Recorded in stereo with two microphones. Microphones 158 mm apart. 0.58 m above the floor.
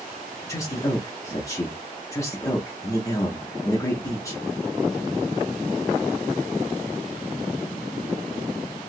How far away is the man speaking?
About 0.8 m.